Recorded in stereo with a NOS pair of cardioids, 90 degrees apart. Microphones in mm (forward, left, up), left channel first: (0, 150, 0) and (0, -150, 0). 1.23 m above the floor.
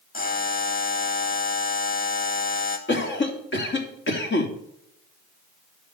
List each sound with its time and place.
0.1 s a buzzer: 30° left, 2.5 m
2.9 s a cough: 35° left, 3 m